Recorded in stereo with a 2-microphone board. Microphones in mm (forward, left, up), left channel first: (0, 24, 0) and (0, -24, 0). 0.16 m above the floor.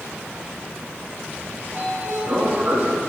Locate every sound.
1.6 s a sliding door: 45° right (ahead or behind), 3.5 m